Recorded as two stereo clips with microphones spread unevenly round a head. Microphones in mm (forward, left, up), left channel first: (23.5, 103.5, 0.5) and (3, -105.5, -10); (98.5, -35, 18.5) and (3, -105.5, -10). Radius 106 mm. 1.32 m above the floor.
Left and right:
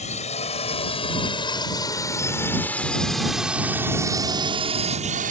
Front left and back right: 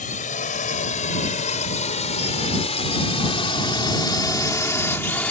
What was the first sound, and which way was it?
A drone, 25° left.